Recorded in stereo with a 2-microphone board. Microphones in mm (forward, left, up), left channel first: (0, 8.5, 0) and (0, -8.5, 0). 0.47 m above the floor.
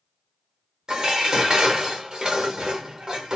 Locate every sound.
0.9 s dishes clattering: 50° right (ahead or behind), 0.9 m